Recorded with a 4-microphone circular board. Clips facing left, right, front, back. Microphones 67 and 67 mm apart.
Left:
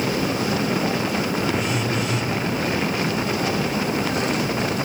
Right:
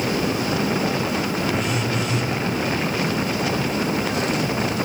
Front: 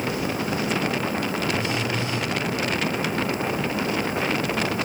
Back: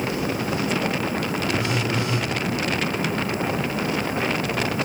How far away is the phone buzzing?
About 1.3 m.